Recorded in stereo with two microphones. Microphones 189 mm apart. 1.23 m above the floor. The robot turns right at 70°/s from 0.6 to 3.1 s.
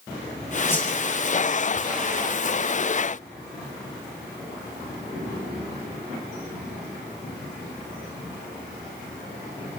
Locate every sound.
0.7 s a whoosh: 15° left (ahead or behind), 7 m; by 0.9 s centre (ahead or behind), 7 m